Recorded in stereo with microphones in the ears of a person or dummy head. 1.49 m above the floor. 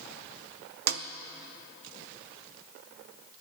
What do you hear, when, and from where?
0.9 s a snare drum: 50° right (ahead or behind), 0.5 m